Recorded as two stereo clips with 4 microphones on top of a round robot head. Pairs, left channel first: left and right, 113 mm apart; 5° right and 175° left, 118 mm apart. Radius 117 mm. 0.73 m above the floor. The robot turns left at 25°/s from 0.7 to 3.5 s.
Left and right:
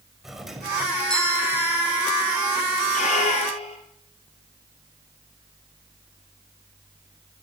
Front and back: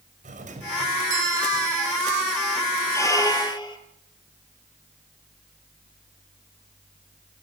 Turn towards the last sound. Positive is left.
turn(degrees=50)